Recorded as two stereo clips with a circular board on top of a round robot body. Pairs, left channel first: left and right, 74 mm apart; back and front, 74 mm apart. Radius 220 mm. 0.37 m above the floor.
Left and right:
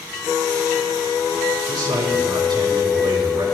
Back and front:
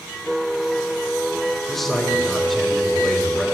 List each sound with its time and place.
1.7 s a man speaking: 95° right, 7 m